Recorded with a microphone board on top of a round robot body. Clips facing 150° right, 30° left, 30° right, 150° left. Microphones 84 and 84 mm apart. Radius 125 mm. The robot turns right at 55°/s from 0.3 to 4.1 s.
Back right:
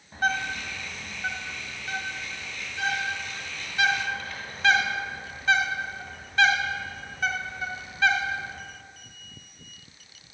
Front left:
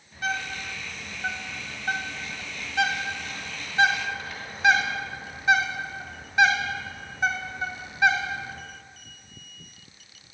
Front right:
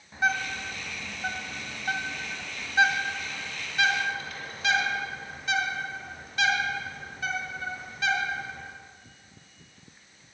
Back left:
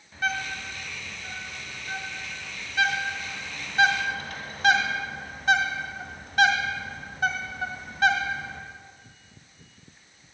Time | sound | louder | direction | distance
0.1 | a bird | back right 3 dB, front right 2 dB | 95° right | 1.8 m